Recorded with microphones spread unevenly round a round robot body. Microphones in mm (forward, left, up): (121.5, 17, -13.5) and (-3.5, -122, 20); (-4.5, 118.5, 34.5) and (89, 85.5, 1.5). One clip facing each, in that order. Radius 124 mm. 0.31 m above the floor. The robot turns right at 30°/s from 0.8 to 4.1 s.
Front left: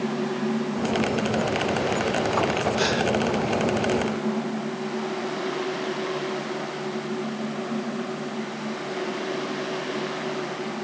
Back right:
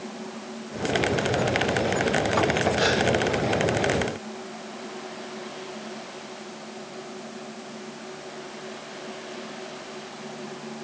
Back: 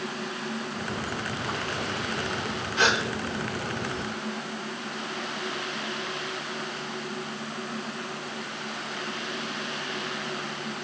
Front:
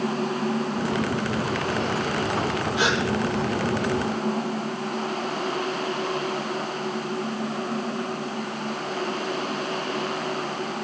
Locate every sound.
2.8 s a gasp: 55° left, 9 m; by 3.0 s 60° left, 9 m